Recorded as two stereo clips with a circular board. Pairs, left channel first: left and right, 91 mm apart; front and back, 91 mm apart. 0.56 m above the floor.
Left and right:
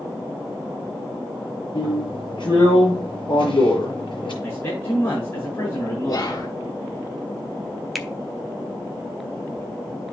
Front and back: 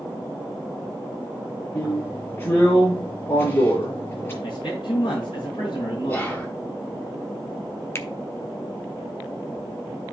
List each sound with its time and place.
1.8 s a drill: 65° left, 6.5 m
4.4 s a man speaking: 35° left, 5.5 m
6.1 s whispering: 60° left, 0.9 m
8.0 s a finger snap: straight ahead, 0.8 m